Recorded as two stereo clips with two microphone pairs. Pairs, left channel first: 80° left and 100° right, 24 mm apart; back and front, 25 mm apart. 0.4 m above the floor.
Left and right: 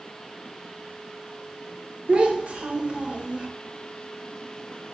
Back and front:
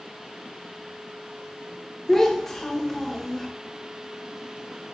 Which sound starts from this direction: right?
A child speaking, at 2.1 s.